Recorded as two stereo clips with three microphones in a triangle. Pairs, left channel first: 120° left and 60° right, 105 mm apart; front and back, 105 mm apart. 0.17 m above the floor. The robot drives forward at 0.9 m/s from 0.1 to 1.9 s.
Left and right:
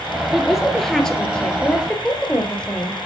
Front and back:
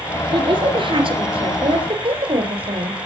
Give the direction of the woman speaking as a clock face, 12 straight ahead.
5 o'clock.